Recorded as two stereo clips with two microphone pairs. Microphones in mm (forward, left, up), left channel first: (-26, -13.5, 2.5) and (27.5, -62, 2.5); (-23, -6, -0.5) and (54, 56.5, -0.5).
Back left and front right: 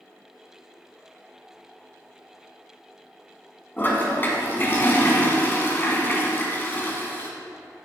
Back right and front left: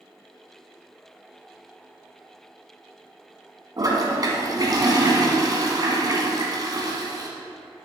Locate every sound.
3.8 s a toilet flushing: 80° left, 1.7 m